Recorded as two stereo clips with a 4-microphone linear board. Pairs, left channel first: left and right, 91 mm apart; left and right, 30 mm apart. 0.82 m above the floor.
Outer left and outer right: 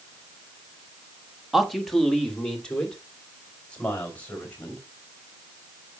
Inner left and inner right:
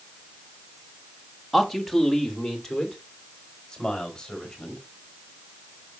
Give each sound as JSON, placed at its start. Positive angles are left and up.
{"t": 1.5, "sound": "a man speaking", "side_deg": -5, "distance_m": 1.2}